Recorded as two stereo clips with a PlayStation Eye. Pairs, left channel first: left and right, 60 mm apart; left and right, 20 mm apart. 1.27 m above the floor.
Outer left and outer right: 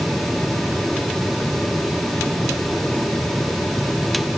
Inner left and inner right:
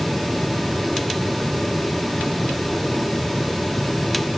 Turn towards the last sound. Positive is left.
No sound to turn to.